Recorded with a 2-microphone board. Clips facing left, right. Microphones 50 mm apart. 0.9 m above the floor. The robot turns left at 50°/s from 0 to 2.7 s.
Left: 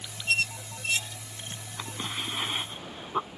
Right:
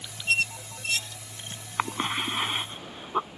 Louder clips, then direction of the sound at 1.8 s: Right 8 dB; 55° right (ahead or behind).